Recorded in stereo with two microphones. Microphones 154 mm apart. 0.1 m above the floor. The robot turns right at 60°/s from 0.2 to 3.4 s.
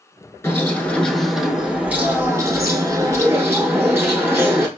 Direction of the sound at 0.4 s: 15° left (ahead or behind).